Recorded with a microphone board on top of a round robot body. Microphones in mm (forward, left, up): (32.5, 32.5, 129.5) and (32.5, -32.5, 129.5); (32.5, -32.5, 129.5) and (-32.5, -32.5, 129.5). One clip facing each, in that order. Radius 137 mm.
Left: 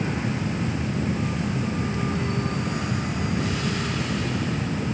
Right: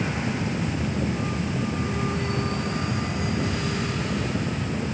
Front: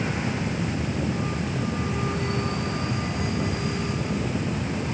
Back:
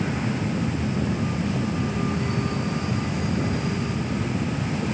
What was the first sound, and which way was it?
Only background noise.